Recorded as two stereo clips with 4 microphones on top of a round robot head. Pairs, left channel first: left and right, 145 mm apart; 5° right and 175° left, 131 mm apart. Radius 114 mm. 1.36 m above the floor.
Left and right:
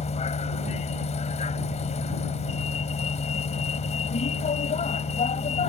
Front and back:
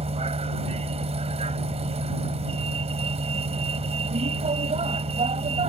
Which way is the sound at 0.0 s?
135° left.